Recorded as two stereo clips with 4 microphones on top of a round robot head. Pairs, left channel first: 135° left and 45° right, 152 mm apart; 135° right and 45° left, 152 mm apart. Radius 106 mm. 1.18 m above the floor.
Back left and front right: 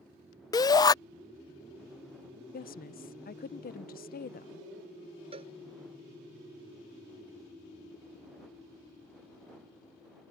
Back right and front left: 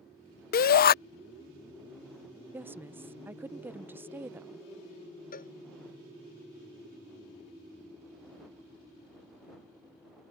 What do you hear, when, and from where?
0.5 s a shout: 160° right
2.5 s a woman speaking: 120° left
5.3 s a cowbell: 100° right